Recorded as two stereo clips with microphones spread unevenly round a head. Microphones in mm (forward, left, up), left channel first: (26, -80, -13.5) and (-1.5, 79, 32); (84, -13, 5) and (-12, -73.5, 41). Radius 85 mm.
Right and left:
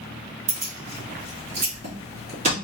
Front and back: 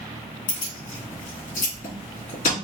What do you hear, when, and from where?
0.5 s keys jangling: 55° left, 2.5 m